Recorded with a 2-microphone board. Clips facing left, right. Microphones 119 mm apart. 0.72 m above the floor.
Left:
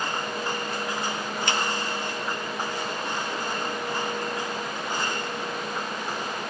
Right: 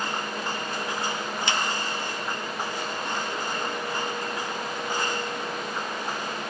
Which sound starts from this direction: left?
A finger snap, at 1.5 s.